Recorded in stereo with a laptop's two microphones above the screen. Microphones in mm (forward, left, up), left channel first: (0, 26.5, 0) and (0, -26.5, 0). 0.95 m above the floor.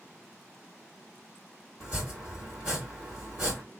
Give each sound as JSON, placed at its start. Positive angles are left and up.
{"t": 1.8, "sound": "chopping", "side_deg": -20, "distance_m": 2.0}